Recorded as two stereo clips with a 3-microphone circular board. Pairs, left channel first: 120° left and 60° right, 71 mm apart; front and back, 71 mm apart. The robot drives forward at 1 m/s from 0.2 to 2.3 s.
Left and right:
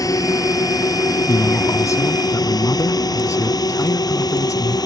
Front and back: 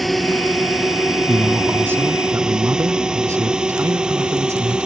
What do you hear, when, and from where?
0.0 s a drone: 90° left; by 4.9 s 105° left
1.3 s a man speaking: 110° left; by 4.8 s 145° left